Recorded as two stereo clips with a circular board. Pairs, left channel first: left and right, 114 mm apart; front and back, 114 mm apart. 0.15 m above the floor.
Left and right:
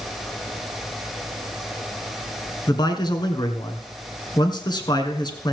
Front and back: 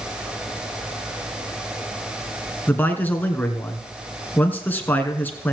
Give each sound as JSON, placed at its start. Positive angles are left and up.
{"t": 2.7, "sound": "a man speaking", "azimuth_deg": 65, "distance_m": 1.6}